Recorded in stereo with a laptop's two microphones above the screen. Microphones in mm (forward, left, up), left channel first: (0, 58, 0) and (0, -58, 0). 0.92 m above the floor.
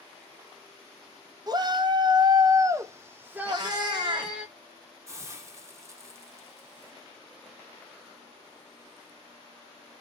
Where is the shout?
35° right (ahead or behind), 0.6 m; by 4.5 s 10° right (ahead or behind), 1.3 m.